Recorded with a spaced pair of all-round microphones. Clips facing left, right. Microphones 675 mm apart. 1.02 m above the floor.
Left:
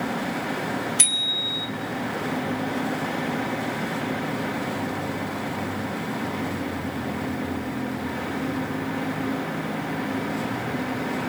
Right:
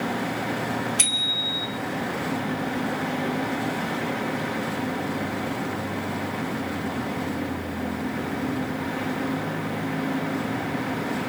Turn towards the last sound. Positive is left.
turn(degrees=-25)  # may be behind; listen again after turning